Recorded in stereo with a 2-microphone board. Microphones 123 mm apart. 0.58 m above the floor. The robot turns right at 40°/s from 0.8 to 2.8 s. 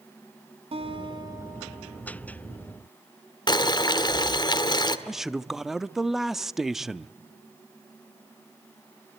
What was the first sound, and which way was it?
A guitar, 50° right.